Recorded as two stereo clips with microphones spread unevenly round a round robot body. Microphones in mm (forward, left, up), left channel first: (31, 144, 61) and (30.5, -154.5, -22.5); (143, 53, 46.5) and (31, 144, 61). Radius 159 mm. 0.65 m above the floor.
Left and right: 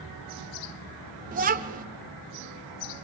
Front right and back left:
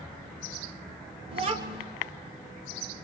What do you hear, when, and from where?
1.3 s a child speaking: 150° right, 1.0 m